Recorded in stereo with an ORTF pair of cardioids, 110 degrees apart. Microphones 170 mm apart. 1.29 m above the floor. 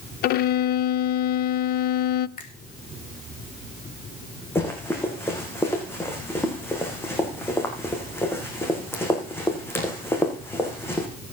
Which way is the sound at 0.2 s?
70° left.